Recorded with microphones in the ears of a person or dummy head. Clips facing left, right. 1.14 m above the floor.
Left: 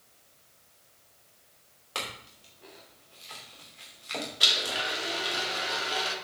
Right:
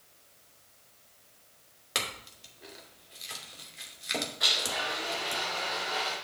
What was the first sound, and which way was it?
A clink, 25° right (ahead or behind).